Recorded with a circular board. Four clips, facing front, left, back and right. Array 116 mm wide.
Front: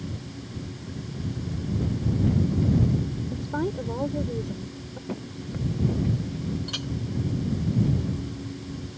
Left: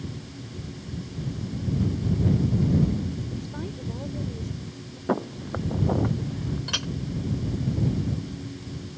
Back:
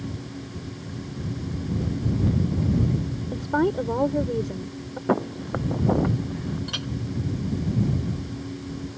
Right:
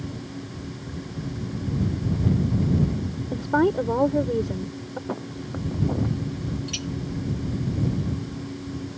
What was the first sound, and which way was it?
A woman speaking, 115° right.